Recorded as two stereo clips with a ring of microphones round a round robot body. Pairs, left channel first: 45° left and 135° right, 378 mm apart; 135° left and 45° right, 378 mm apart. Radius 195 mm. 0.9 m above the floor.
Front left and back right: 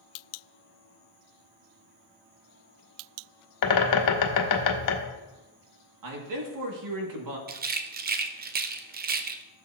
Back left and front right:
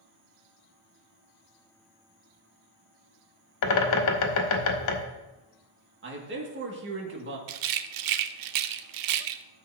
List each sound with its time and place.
3.6 s a bird: 90° left, 1.2 m
6.0 s a man speaking: 105° right, 2.0 m
7.5 s a rattle: 70° right, 0.6 m